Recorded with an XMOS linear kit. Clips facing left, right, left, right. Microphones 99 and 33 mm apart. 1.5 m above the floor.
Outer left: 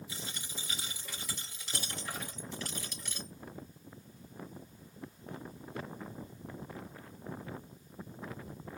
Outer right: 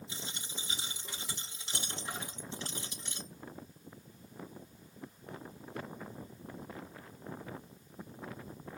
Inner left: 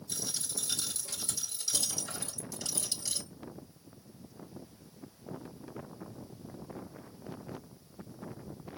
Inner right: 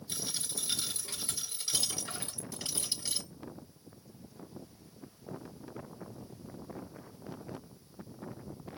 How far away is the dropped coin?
About 4 m.